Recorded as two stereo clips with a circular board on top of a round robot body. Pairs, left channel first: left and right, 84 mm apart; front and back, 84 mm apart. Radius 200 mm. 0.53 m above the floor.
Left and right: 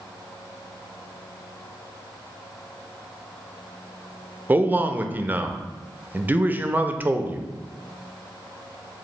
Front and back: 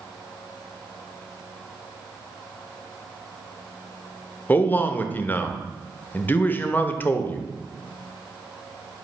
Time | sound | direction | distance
4.5 | a man speaking | 45° right | 0.7 m